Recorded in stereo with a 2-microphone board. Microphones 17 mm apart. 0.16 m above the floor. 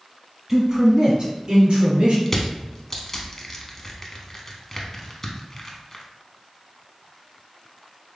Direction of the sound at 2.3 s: 20° left (ahead or behind).